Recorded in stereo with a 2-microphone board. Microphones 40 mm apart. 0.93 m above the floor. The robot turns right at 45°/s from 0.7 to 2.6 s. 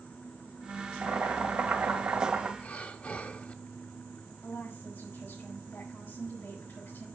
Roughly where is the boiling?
Right.